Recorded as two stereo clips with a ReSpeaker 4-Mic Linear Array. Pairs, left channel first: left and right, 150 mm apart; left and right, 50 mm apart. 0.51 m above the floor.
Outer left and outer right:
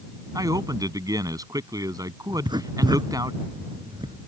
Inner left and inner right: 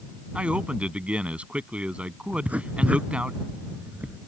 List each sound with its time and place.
0.3 s a man speaking: 25° right (ahead or behind)
2.3 s writing: 30° right (ahead or behind)